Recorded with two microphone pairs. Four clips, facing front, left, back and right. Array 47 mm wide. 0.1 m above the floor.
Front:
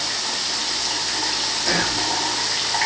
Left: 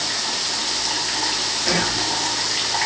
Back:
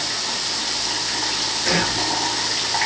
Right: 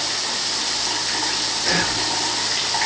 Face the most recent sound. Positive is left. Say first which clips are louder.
# even, back 1 dB
turn(degrees=-145)